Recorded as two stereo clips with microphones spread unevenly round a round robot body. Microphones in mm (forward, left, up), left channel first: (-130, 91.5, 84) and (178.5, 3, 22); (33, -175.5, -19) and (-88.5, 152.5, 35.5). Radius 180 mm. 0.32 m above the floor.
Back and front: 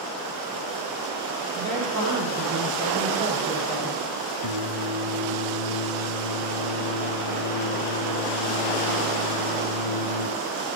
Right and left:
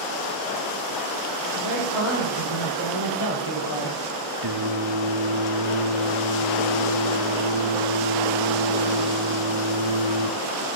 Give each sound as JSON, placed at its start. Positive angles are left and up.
{"t": 1.5, "sound": "a man speaking", "azimuth_deg": -90, "distance_m": 8.0}
{"t": 4.4, "sound": "singing", "azimuth_deg": 145, "distance_m": 1.3}